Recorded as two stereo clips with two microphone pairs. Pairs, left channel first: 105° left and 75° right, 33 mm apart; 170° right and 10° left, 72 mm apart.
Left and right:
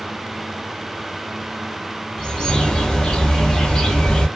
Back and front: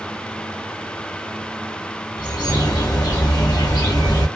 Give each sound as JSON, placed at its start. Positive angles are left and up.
{"t": 2.2, "sound": "a bird", "azimuth_deg": 175, "distance_m": 1.3}